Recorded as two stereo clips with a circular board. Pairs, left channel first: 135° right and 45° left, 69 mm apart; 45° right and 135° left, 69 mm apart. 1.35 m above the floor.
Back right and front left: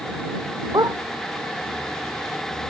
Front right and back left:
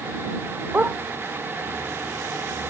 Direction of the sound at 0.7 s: 70° left.